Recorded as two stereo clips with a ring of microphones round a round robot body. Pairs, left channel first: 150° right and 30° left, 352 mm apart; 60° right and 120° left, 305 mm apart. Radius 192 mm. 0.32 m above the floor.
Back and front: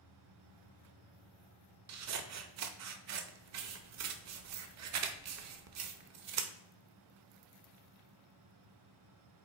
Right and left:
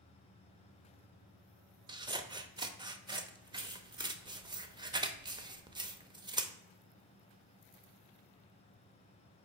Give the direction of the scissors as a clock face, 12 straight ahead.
10 o'clock.